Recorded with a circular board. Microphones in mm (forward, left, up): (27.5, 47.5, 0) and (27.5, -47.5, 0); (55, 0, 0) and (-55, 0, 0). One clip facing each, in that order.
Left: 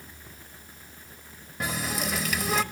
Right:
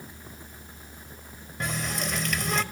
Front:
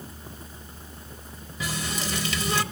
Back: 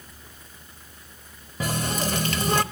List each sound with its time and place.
1.6 s a running tap: 175° left, 0.8 m